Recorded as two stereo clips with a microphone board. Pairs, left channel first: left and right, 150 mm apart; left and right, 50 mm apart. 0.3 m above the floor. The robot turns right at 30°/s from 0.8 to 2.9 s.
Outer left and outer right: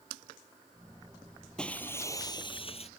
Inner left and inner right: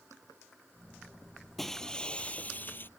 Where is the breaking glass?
5° left; by 2.9 s 45° left.